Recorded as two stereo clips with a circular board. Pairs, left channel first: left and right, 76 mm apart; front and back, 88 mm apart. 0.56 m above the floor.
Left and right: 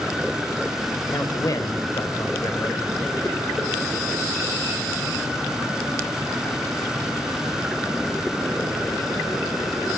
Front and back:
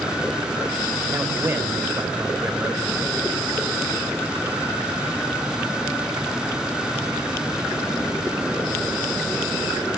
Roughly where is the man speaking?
Behind left.